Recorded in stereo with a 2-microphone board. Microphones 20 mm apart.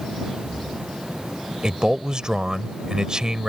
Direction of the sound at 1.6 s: 40° right (ahead or behind).